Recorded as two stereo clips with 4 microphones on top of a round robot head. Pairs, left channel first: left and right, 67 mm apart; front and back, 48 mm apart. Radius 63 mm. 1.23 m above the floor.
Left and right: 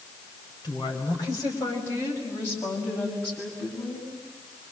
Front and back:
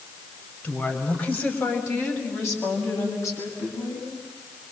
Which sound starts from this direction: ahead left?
A woman speaking, at 0.6 s.